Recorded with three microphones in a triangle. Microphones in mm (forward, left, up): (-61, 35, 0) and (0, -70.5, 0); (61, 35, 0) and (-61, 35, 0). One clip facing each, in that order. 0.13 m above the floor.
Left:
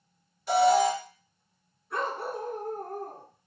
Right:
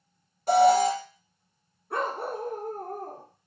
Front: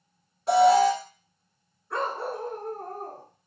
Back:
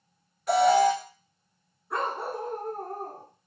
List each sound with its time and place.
0.5 s an alarm: 50° right, 1.5 m
1.9 s a dog barking: 100° right, 2.5 m